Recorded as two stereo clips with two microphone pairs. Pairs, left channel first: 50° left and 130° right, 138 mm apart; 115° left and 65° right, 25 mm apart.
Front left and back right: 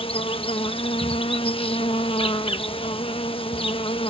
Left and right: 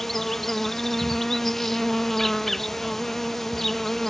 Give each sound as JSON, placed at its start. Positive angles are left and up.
{"t": 0.0, "sound": "an insect", "azimuth_deg": 45}